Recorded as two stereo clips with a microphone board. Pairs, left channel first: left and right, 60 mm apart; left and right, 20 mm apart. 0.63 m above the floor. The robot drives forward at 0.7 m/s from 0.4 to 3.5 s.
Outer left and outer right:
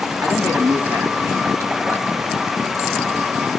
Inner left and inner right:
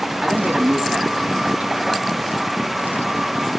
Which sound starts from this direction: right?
A man speaking, at 0.2 s.